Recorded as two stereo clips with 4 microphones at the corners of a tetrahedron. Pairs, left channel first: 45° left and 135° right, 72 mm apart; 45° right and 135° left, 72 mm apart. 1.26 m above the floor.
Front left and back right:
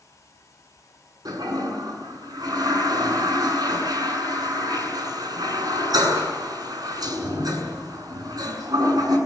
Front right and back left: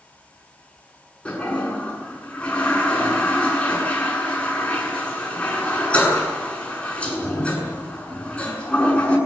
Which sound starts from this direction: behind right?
A toilet flushing, at 1.2 s.